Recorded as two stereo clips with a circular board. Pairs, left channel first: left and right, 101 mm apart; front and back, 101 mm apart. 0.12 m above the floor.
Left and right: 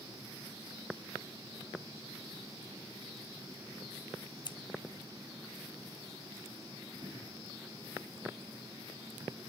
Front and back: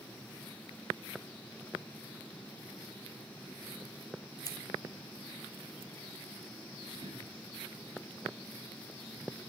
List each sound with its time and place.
4.5 s scissors: 50° left, 0.9 m
7.0 s throat clearing: 140° right, 6 m